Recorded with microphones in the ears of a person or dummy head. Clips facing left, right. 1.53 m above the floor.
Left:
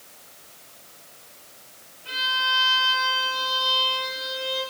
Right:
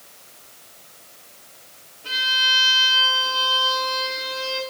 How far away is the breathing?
I don't hear breathing.